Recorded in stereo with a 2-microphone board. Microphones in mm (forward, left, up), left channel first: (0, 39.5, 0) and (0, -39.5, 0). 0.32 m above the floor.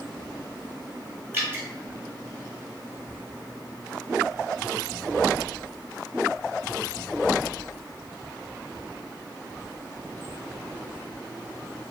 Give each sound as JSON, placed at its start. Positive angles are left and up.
{"t": 1.3, "sound": "dripping", "side_deg": -25, "distance_m": 1.4}